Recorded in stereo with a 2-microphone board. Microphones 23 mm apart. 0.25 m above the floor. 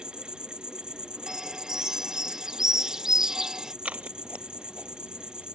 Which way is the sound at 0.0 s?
40° right (ahead or behind).